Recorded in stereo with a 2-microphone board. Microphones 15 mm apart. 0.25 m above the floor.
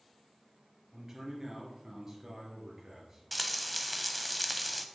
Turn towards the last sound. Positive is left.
turn(degrees=5)  # may be behind; listen again after turning